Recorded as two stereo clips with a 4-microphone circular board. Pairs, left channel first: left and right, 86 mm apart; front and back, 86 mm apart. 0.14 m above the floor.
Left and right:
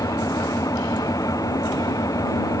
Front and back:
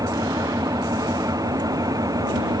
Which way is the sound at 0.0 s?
135° left.